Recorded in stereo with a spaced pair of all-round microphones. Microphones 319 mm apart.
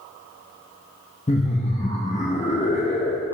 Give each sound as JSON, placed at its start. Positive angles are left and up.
{"t": 1.3, "sound": "laughter", "side_deg": 20, "distance_m": 0.6}